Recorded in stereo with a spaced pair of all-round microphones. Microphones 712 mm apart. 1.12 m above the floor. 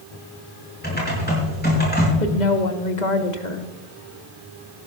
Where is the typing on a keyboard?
15° left (ahead or behind), 5 m.